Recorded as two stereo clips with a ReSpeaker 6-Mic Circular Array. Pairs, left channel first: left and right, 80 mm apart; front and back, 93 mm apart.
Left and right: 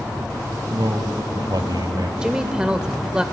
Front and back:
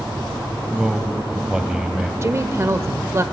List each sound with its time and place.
0.7 s a man speaking: 100° right, 1.7 m
2.2 s a woman speaking: 160° right, 1.0 m